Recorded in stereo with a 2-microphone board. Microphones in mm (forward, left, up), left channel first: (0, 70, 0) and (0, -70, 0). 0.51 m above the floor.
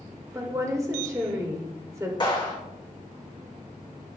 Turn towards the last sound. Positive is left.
turn(degrees=35)  # may be behind; listen again after turning